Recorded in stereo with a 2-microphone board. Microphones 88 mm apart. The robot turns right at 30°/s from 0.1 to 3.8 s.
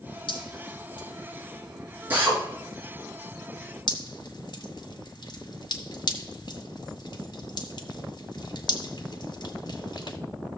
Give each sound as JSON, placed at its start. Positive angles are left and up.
{"t": 0.3, "sound": "dripping", "side_deg": 70, "distance_m": 5.5}
{"t": 2.1, "sound": "a drill", "side_deg": -20, "distance_m": 4.0}
{"t": 3.9, "sound": "dripping", "side_deg": 55, "distance_m": 1.7}